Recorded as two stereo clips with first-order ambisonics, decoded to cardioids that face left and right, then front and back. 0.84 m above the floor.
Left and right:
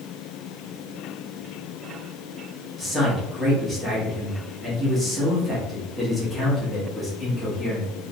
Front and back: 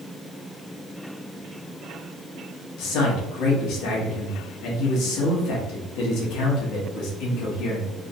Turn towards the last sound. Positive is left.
turn(degrees=0)